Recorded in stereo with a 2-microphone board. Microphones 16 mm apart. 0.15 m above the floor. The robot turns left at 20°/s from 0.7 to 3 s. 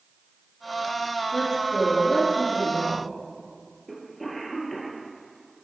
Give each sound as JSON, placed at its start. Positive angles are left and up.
{"t": 1.3, "sound": "a woman speaking", "azimuth_deg": 155, "distance_m": 3.0}
{"t": 3.9, "sound": "a cough", "side_deg": 15, "distance_m": 3.0}